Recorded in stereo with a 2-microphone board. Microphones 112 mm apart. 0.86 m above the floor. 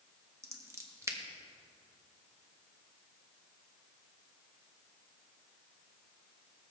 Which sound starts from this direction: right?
Scissors, at 0.4 s.